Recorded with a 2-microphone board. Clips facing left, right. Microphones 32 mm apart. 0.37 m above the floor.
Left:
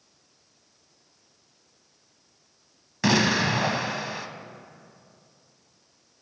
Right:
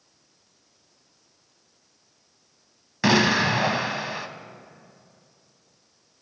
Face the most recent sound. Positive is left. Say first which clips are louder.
# right 2 dB
turn(degrees=-15)  # may be behind; listen again after turning